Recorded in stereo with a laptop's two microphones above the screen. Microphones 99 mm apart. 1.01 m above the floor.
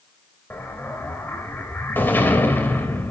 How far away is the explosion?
About 3 m.